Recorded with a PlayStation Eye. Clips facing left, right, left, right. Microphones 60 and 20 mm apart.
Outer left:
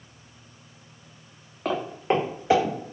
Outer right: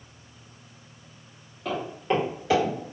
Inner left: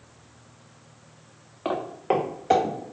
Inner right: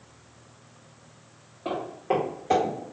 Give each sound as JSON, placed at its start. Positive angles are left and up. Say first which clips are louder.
{"t": 1.6, "sound": "footsteps", "louder": "outer left 2 dB, inner left 2 dB", "side_deg": 65, "distance_m": 0.7}